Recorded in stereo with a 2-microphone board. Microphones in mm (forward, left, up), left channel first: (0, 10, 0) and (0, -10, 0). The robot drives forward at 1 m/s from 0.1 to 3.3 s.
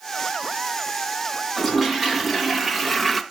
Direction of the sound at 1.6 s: 5° left (ahead or behind).